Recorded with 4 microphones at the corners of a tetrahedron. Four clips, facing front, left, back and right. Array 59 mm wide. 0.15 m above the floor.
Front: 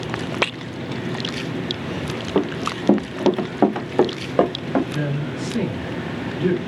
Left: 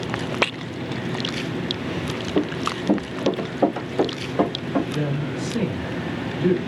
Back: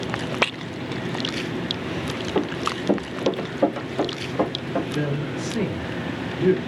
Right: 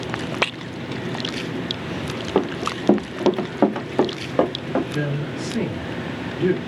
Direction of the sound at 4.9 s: 35° right.